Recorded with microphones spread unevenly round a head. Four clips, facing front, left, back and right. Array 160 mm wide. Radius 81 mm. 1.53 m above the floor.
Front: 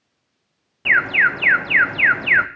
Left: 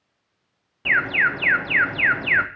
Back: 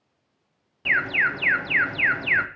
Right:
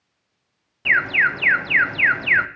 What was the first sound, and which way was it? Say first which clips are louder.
An alarm: right 1 dB, front 6 dB; 30° left.